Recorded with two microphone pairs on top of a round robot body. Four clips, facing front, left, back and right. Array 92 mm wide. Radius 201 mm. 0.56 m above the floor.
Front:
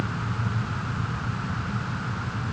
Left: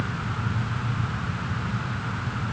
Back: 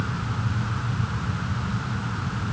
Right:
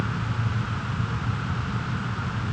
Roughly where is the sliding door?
I don't hear a sliding door.